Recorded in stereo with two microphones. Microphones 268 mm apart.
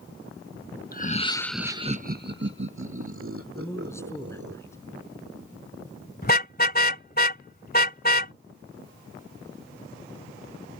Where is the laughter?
35° left (ahead or behind); by 4.6 s 55° right (ahead or behind).